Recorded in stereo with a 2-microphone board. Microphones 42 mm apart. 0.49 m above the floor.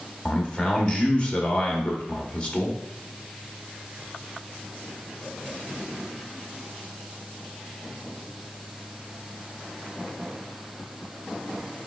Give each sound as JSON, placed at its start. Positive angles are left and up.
{"t": 0.2, "sound": "a man speaking", "side_deg": 25, "distance_m": 0.7}